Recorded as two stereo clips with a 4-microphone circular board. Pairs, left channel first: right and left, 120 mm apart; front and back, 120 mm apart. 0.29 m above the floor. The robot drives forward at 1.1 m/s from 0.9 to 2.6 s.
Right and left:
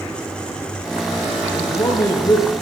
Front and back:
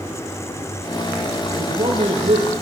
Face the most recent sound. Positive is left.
turn(degrees=-150)